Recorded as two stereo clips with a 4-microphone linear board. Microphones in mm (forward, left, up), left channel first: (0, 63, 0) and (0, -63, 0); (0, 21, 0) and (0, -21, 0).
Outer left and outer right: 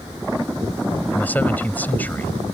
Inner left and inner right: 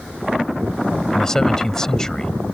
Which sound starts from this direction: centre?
A man speaking, at 1.1 s.